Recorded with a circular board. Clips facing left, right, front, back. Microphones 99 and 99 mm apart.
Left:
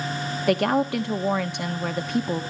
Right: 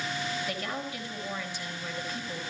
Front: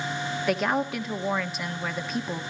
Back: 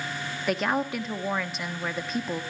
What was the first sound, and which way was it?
A woman speaking, 90° left.